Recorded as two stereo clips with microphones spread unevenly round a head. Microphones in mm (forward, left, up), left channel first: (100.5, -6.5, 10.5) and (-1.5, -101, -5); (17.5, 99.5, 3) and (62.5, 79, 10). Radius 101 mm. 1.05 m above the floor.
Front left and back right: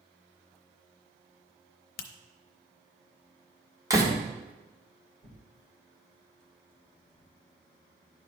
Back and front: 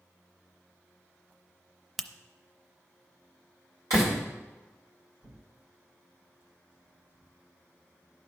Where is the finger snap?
65° left, 0.6 m.